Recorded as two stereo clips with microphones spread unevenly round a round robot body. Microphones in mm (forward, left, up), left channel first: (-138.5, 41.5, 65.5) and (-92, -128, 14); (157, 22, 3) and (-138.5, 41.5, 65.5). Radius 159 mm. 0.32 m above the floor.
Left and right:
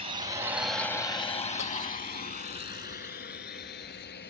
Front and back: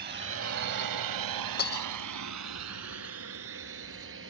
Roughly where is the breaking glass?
Ahead left.